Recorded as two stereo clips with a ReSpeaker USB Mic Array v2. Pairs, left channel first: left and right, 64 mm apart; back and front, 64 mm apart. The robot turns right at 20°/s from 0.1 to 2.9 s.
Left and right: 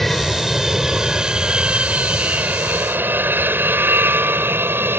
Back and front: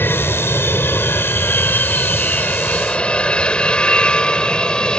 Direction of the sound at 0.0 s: 175° left.